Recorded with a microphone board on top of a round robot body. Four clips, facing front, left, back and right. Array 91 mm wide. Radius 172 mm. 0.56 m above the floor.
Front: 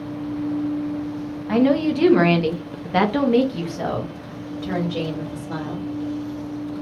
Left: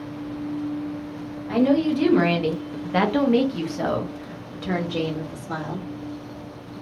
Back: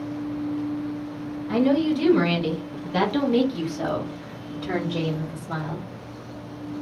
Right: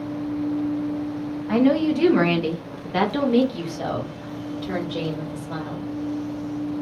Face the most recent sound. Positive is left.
turn(degrees=105)